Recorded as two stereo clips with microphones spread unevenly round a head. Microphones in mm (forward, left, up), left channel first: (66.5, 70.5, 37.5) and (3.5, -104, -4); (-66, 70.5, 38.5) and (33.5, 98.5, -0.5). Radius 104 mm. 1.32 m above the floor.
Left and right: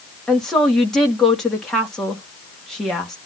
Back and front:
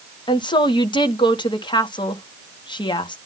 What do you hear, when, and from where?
0.3 s a woman speaking: 155° left, 1.9 m